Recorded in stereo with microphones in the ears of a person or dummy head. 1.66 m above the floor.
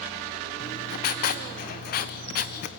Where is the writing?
45° left (ahead or behind), 1.0 m.